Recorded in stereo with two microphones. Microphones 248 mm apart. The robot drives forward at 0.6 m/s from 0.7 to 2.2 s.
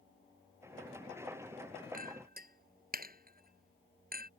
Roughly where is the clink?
Right.